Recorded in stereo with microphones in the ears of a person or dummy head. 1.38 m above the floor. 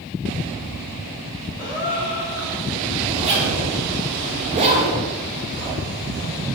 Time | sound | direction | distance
1.6 | a gasp | 20° right (ahead or behind) | 1.9 m
3.1 | a zipper | 30° right (ahead or behind) | 0.7 m